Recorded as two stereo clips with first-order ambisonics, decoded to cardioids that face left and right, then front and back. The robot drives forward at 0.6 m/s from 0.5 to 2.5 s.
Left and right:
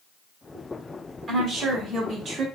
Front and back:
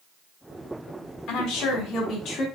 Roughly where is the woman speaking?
Ahead.